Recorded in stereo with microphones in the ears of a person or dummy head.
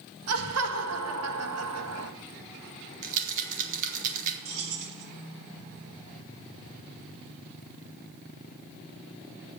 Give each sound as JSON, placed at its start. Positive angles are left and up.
{"t": 0.3, "sound": "laughter", "side_deg": -85, "distance_m": 1.6}
{"t": 3.0, "sound": "a rattle", "side_deg": -45, "distance_m": 1.8}
{"t": 4.5, "sound": "keys jangling", "side_deg": -60, "distance_m": 3.0}